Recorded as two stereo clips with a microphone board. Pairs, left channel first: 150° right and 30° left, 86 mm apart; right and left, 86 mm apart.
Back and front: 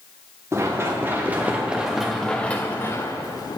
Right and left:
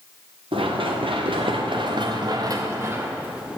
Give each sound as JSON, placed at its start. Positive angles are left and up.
{"t": 0.5, "sound": "running footsteps", "azimuth_deg": 90, "distance_m": 2.0}